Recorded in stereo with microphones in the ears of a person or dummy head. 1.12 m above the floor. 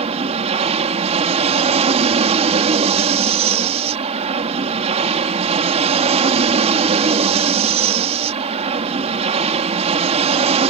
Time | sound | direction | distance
0.0 | an aircraft | 30° right (ahead or behind) | ?